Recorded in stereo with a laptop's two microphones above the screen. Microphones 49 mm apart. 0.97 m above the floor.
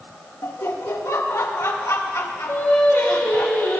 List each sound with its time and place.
0.4 s laughter: 65° left (ahead or behind), 1.5 m
2.5 s singing: 60° left (ahead or behind), 2.5 m